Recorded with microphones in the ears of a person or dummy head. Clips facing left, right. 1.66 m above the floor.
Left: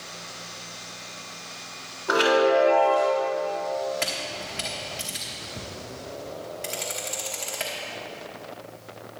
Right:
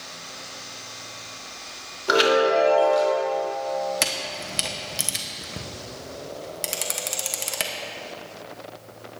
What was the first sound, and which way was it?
A chime, 40° right (ahead or behind).